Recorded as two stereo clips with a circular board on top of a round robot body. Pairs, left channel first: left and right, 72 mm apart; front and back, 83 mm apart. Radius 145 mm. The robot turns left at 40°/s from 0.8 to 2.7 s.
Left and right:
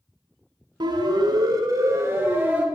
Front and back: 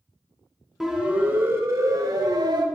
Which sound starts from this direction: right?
A siren, at 0.8 s.